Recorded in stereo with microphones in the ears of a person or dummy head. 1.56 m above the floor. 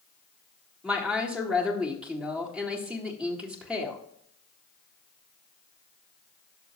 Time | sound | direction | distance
0.8 | a woman speaking | 5° right (ahead or behind) | 1.8 m